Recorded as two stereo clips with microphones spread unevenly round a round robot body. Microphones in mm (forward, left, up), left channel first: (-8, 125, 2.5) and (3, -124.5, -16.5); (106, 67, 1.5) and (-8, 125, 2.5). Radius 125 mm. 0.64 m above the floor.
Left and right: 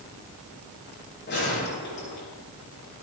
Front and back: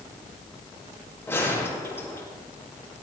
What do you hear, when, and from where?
1.3 s a gunshot: 45° left, 9 m